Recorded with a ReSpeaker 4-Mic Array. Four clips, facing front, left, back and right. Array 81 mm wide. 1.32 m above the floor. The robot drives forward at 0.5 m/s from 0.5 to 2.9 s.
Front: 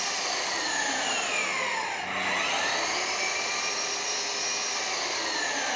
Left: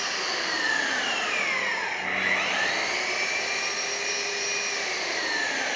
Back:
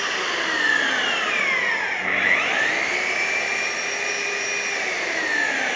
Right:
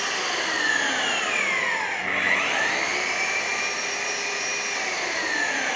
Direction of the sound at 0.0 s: 175° right.